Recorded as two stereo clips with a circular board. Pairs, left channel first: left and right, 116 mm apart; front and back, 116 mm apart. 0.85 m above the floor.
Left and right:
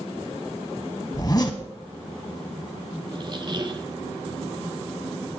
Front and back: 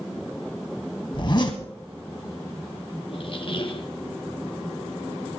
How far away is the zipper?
About 1.3 m.